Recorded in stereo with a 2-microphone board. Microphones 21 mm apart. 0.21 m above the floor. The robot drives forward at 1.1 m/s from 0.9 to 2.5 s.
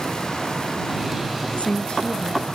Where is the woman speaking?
65° left (ahead or behind); by 2.5 s 60° left (ahead or behind).